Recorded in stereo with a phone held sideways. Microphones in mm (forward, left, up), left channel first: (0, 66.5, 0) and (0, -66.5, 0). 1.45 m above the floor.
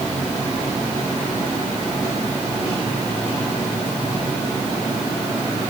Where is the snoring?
I don't hear snoring.